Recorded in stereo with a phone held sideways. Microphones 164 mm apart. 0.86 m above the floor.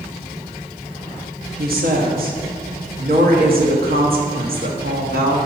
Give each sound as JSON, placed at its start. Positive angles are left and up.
{"t": 1.6, "sound": "a woman speaking", "side_deg": -65, "distance_m": 1.2}